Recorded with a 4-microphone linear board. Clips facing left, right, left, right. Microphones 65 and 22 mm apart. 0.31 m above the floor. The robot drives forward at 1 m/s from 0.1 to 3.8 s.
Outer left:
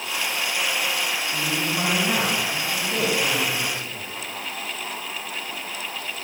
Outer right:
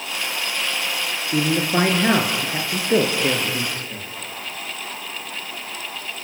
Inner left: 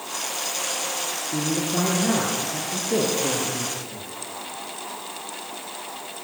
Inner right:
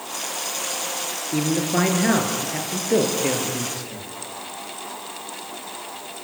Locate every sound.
1.3 s a man speaking: 70° right (ahead or behind), 6.5 m; by 4.1 s 55° right (ahead or behind), 7.5 m